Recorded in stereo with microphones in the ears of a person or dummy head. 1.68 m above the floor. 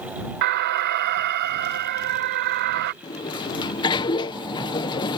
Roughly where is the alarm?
Right.